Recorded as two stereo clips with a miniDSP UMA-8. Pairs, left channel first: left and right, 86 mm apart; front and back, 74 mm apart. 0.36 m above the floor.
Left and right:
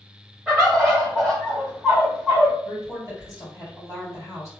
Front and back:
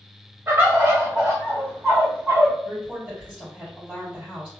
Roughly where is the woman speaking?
Behind left.